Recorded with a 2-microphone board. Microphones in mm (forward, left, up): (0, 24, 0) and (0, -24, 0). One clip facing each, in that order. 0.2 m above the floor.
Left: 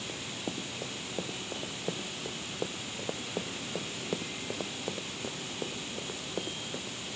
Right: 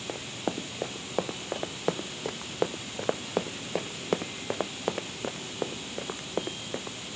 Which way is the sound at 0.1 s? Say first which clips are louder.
Right 7 dB; 80° right.